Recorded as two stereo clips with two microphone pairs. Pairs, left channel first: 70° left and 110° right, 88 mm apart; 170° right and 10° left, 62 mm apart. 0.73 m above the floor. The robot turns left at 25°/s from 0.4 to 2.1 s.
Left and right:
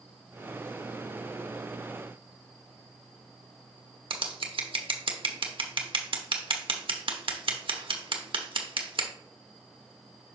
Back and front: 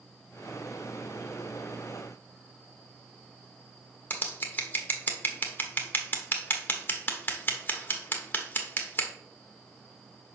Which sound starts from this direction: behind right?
Scissors, at 4.1 s.